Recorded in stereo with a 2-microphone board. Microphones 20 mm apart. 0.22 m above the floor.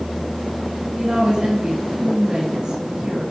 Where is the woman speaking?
40° right (ahead or behind), 1.9 m.